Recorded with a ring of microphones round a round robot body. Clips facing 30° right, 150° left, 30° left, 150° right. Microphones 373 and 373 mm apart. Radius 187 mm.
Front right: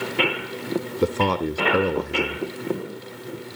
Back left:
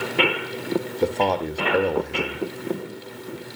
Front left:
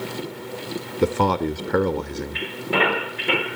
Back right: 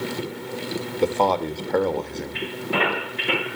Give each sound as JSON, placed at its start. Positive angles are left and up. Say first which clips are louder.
{"t": 1.0, "sound": "a man speaking", "louder": "front right 2 dB, front left 1 dB", "azimuth_deg": 10, "distance_m": 0.7}